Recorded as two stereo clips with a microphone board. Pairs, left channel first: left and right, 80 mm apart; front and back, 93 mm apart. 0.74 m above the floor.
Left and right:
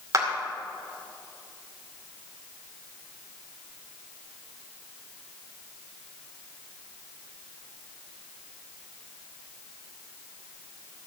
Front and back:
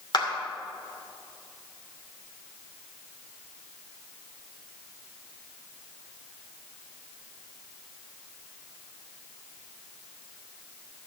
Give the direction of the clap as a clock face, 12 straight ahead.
1 o'clock.